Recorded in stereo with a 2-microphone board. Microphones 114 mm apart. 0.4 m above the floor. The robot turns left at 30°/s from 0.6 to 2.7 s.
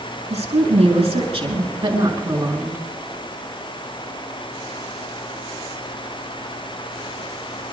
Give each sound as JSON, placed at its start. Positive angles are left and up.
{"t": 0.3, "sound": "a woman speaking", "azimuth_deg": -90, "distance_m": 6.0}